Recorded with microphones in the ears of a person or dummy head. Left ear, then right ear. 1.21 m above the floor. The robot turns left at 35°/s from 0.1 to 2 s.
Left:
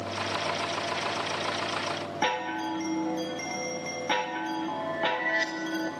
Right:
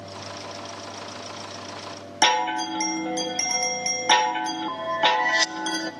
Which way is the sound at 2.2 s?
35° right (ahead or behind).